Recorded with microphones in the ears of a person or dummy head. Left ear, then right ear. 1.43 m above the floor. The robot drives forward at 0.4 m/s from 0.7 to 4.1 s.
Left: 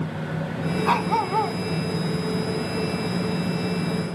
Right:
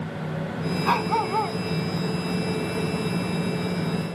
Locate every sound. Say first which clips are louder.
0.8 s a dog barking: left 1 dB; centre (ahead or behind)